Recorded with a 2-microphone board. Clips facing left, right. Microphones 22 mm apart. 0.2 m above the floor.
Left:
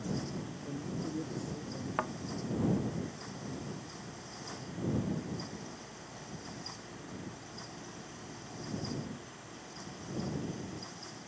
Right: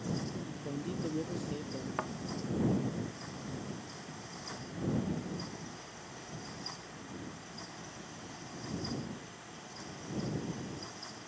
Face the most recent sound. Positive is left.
turn(degrees=10)  # may be behind; listen again after turning